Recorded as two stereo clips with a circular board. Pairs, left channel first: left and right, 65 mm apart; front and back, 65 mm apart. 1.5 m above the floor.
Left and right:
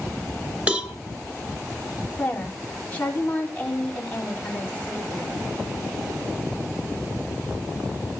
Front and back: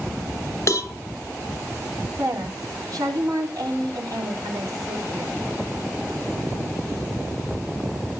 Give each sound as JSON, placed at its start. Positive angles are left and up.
{"t": 0.7, "sound": "a cowbell", "azimuth_deg": -25, "distance_m": 1.6}
{"t": 2.2, "sound": "a woman speaking", "azimuth_deg": 160, "distance_m": 4.0}